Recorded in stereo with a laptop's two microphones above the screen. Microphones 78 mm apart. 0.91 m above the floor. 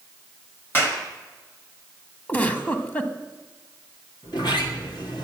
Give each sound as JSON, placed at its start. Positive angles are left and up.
{"t": 0.7, "sound": "a clap", "side_deg": 25, "distance_m": 1.5}
{"t": 2.3, "sound": "a giggle", "side_deg": 25, "distance_m": 1.5}
{"t": 4.2, "sound": "a sliding door", "side_deg": 70, "distance_m": 2.0}